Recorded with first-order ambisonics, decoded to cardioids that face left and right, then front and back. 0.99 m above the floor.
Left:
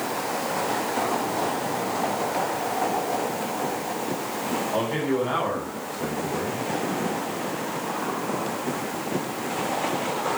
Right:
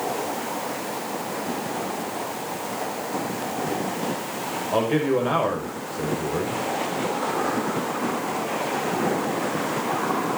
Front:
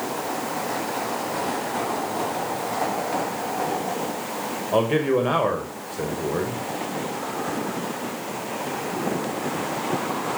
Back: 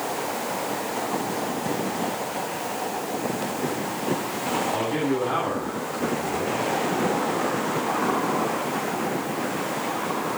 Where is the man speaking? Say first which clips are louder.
Right 6 dB, front 4 dB; 30° right, 5.5 m.